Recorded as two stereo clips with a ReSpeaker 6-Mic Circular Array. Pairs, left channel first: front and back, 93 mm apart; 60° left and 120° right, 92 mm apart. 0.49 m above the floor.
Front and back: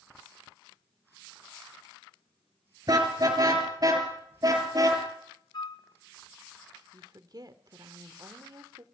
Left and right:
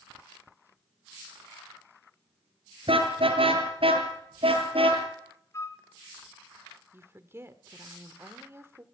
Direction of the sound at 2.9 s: 135° right.